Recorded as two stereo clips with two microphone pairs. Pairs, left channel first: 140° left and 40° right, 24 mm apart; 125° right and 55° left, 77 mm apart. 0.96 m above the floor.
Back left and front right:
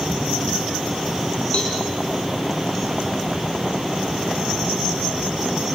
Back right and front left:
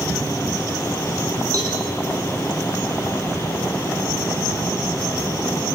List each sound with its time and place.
1.5 s a cowbell: 95° left, 5.5 m